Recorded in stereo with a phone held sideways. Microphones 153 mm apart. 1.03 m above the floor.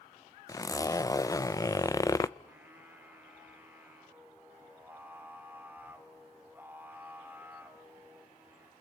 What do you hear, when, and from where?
0.5 s a zipper: 25° left (ahead or behind), 0.5 m
2.4 s singing: 15° right (ahead or behind), 2.5 m